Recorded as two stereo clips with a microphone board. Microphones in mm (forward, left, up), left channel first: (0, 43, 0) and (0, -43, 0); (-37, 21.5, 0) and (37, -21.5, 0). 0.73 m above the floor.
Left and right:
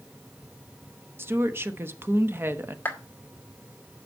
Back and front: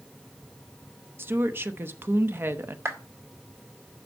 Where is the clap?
25° left, 2 m.